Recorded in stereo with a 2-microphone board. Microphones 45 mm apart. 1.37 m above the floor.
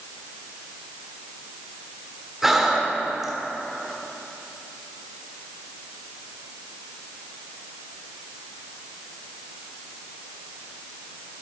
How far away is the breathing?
About 1.3 m.